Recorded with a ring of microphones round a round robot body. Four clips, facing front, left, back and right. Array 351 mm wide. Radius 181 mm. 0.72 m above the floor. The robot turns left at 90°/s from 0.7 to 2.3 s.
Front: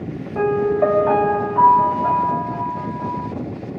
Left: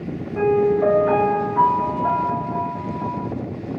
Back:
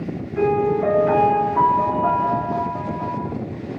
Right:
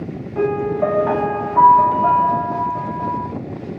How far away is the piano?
About 1.5 m.